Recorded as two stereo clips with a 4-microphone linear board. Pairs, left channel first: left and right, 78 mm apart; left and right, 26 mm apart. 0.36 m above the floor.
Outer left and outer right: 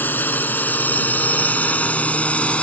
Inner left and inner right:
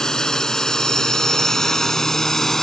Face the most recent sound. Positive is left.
turn(degrees=15)  # may be behind; listen again after turning